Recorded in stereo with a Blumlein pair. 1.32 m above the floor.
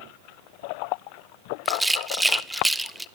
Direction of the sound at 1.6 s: 5° right.